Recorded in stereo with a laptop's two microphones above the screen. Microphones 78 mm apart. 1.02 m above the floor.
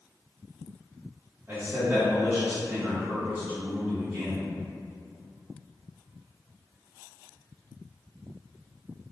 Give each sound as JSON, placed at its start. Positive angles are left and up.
{"t": 1.5, "sound": "a man speaking", "side_deg": -25, "distance_m": 1.6}